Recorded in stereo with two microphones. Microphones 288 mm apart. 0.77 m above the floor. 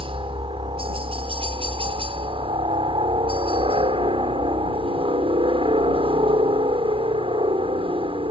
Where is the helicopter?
20° right (ahead or behind).